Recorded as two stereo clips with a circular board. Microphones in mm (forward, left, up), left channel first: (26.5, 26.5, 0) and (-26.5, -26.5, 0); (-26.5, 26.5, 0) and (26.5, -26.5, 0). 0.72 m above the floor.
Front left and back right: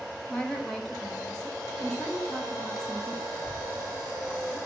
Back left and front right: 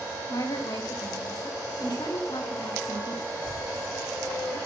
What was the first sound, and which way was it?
A woman speaking, 125° left.